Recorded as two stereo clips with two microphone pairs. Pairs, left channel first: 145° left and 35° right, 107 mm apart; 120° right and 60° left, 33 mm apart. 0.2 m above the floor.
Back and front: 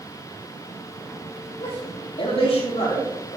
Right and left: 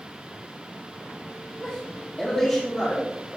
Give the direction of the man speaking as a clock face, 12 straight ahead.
6 o'clock.